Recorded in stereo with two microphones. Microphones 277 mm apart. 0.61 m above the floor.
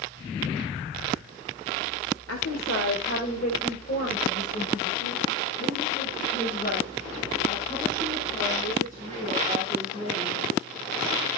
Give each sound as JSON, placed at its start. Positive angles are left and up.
{"t": 2.3, "sound": "a woman speaking", "side_deg": 55, "distance_m": 2.0}